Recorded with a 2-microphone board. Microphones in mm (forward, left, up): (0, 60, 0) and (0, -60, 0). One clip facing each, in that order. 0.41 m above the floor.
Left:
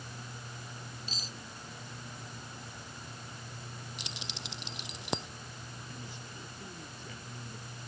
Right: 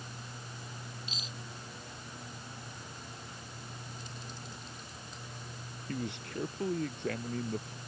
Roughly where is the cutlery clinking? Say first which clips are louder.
Even; left.